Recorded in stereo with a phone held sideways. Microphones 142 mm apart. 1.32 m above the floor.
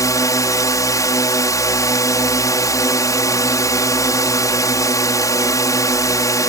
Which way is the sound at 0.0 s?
25° left (ahead or behind).